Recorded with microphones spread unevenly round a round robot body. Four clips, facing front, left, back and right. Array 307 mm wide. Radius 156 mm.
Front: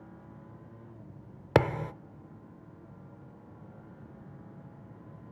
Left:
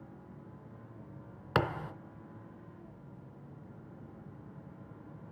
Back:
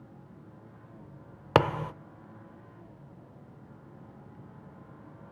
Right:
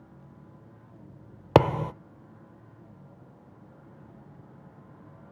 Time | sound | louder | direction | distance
1.6 | a thud | right 11 dB, back 1 dB | 90° right | 0.6 m